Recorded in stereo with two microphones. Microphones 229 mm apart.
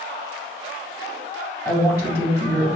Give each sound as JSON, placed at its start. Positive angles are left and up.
{"t": 1.6, "sound": "a woman speaking", "side_deg": 20, "distance_m": 2.0}